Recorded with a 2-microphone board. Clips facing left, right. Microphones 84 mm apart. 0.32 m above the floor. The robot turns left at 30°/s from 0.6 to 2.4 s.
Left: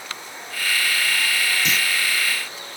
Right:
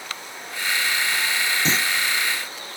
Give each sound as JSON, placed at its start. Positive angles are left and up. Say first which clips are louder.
{"t": 1.6, "sound": "a clunk", "louder": "right 1 dB", "side_deg": -35}